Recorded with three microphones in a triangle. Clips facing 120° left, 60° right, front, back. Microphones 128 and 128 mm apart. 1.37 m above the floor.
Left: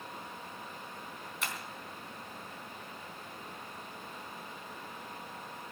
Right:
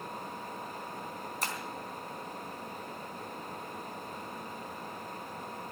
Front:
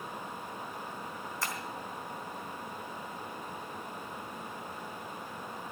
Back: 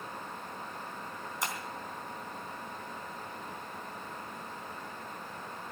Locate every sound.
1.4 s breaking glass: 110° right, 3.5 m